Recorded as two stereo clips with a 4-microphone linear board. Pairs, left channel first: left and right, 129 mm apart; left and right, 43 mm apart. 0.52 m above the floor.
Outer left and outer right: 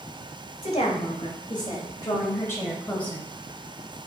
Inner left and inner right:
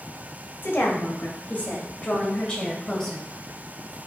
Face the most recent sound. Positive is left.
turn(degrees=5)  # may be behind; listen again after turning